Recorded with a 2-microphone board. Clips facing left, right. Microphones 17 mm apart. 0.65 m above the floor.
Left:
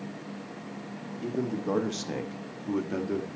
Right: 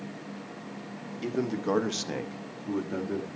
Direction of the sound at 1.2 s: 40° right (ahead or behind).